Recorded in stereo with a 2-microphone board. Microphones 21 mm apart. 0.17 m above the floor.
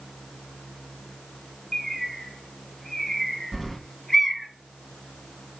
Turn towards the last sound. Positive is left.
turn(degrees=15)  # may be behind; listen again after turning